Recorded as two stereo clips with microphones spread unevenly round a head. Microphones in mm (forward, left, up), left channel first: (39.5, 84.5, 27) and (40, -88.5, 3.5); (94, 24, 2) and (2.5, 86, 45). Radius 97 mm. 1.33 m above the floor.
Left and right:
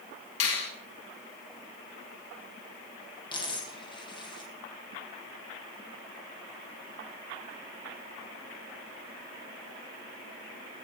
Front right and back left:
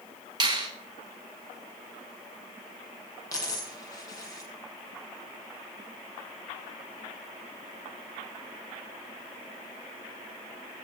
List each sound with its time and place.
0.4 s a finger snap: 95° left, 7 m
3.3 s a dropped coin: 30° left, 6 m